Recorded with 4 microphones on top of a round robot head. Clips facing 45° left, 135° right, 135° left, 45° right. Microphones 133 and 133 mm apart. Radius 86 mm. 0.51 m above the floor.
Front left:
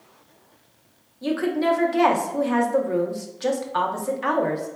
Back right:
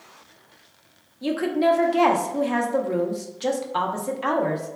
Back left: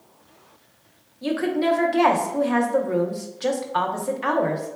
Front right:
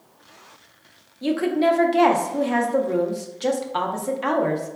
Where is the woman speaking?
85° right, 0.7 m.